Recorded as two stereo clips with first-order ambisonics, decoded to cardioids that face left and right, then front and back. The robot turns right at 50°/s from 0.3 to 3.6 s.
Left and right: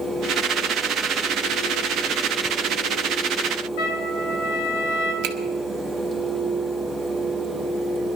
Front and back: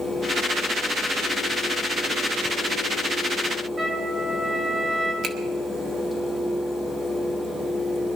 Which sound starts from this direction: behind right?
A finger snap, at 5.2 s.